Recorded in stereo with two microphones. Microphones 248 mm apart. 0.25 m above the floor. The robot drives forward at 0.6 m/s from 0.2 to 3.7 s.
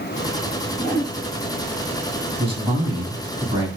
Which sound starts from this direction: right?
A man speaking, at 2.4 s.